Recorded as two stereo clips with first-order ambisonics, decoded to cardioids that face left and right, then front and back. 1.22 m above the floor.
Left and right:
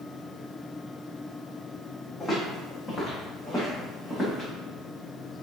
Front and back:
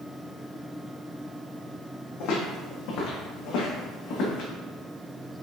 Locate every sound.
2.2 s footsteps: 10° left, 3 m; by 4.5 s 5° right, 4.5 m